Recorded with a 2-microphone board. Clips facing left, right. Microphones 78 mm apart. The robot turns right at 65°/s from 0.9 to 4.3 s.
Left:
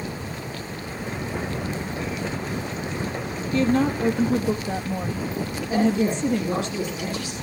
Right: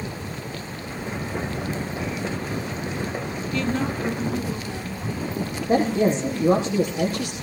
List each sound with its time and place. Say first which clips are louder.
3.5 s a woman speaking: left 5 dB; 35° left, 2.5 m; by 6.7 s 85° left, 2.5 m
5.7 s a man speaking: right 2 dB; 55° right (ahead or behind), 4.5 m